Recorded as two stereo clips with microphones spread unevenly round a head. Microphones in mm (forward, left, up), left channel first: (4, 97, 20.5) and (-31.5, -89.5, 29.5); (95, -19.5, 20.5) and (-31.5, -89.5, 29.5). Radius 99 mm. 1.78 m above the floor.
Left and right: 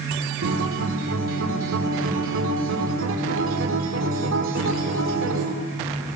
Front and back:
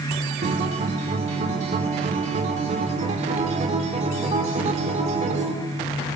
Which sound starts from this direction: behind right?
A guitar, at 0.4 s.